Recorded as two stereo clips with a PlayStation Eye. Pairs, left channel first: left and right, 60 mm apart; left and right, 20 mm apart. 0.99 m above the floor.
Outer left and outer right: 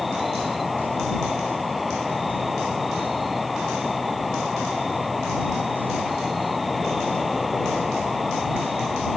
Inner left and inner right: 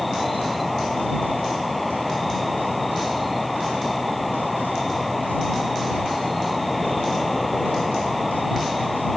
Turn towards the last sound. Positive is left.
turn(degrees=0)  # may be behind; listen again after turning